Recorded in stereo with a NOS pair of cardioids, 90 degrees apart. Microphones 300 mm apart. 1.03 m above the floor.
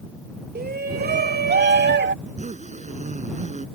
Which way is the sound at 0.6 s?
35° right.